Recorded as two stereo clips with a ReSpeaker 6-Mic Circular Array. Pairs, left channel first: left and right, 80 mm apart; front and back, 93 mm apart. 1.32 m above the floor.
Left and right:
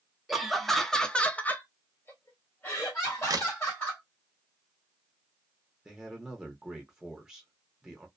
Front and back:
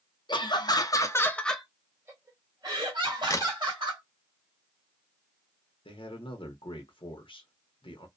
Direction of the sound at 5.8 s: 5° right.